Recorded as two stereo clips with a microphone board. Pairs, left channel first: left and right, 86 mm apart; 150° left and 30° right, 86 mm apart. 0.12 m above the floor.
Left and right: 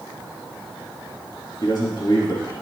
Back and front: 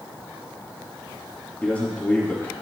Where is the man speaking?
80° left, 2.5 m.